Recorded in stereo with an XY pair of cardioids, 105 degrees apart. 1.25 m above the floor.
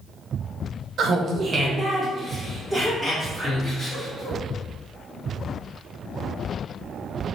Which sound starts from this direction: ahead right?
Laughter, at 1.0 s.